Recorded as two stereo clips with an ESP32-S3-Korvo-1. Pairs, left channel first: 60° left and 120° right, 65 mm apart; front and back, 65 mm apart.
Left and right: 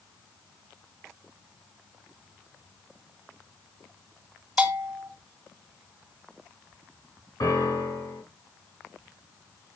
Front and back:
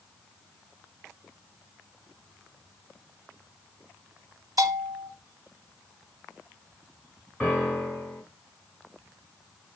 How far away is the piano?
About 3.5 m.